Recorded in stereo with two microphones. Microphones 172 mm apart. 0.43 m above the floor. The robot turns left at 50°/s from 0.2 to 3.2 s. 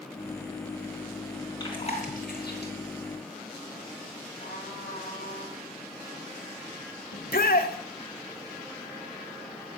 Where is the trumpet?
75° left (ahead or behind), 10 m.